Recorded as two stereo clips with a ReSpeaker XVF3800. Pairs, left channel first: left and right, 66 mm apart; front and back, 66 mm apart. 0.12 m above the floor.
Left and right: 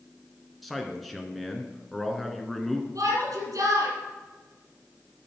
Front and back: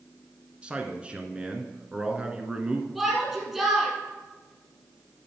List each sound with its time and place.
0.6 s a man speaking: 175° left, 1.1 m
3.0 s a shout: 95° right, 4 m